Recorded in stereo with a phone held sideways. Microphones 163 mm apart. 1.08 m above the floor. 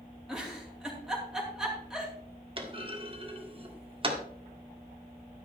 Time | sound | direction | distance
0.3 | a giggle | 5° right (ahead or behind) | 3 m
2.6 | a clunk | 35° right (ahead or behind) | 1.7 m